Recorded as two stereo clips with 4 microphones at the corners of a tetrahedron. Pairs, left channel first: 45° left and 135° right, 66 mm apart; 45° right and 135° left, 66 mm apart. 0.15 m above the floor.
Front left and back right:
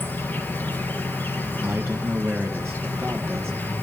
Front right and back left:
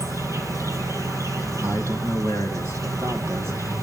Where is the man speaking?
Straight behind, 3.5 m.